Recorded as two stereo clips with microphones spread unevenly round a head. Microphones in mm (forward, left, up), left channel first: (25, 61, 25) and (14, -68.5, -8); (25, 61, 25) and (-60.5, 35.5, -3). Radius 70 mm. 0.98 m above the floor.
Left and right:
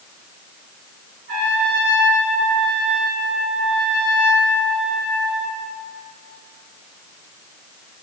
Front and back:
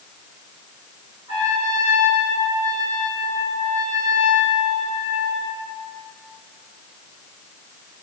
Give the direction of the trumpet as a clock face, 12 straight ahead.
3 o'clock.